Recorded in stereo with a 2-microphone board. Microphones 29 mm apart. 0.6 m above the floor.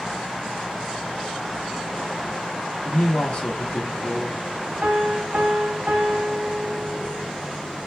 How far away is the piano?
About 0.7 m.